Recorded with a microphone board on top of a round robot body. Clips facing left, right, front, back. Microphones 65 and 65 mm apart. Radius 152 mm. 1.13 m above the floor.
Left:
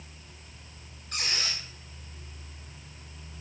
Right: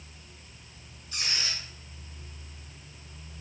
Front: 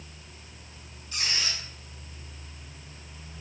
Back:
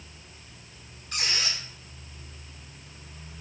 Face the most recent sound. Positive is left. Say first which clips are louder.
# left 1 dB, back 1 dB
turn(degrees=135)